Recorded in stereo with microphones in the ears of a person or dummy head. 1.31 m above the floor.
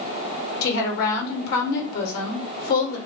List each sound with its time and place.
0.6 s a woman speaking: 60° left (ahead or behind), 1.2 m